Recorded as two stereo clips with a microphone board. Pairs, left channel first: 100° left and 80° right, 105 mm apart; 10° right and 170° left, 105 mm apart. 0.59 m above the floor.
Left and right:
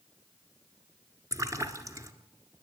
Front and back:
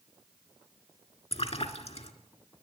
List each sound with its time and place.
1.3 s a splash: 20° right, 1.6 m